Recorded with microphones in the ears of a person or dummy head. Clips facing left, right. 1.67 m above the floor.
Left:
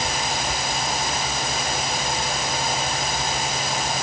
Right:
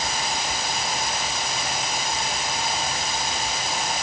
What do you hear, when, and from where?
Only background noise.